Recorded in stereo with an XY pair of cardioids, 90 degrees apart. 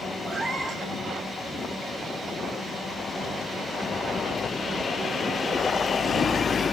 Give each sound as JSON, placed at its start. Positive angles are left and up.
{"t": 0.2, "sound": "a cat meowing", "azimuth_deg": -55, "distance_m": 6.5}